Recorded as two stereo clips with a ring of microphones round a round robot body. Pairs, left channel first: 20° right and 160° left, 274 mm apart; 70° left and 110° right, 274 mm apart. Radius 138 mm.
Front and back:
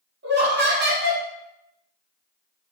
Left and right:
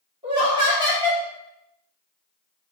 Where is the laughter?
Straight behind, 0.9 m.